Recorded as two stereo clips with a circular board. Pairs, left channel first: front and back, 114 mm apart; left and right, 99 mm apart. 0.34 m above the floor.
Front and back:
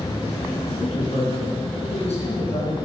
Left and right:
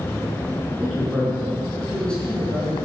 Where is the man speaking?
5° right, 4 m; by 2.8 s 20° left, 3.5 m.